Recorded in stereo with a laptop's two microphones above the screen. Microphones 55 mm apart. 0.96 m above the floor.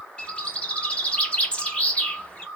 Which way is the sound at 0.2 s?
20° left (ahead or behind).